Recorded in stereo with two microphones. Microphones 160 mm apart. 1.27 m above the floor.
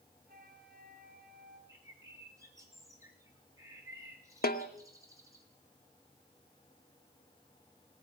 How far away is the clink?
I don't hear a clink.